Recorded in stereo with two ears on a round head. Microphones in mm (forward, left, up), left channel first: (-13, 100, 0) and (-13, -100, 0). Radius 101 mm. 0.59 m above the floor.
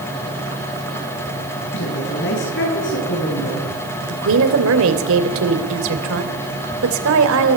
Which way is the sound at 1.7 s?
60° left (ahead or behind).